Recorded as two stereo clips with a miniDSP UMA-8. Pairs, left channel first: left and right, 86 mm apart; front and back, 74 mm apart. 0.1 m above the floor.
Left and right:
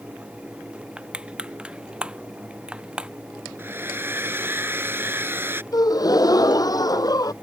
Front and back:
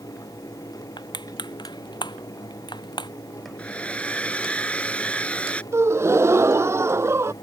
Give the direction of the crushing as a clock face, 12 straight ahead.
12 o'clock.